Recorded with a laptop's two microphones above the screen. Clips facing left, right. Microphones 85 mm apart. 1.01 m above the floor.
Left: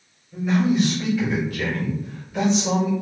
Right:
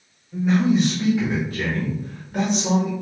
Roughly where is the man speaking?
Centre.